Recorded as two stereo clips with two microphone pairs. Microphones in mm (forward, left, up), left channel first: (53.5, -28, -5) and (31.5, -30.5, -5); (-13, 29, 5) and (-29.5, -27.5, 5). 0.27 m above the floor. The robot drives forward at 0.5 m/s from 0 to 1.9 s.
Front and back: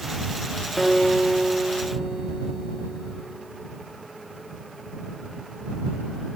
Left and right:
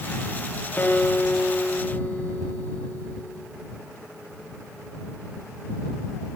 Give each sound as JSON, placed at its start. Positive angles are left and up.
{"t": 0.8, "sound": "a guitar", "azimuth_deg": 75, "distance_m": 1.1}